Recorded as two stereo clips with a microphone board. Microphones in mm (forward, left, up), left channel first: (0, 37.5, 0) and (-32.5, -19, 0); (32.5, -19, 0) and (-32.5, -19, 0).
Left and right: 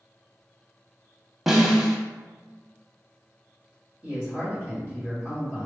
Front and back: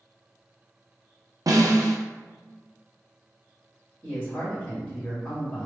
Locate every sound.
1.5 s a snare drum: 155° left, 0.6 m
4.0 s a man speaking: 70° right, 1.4 m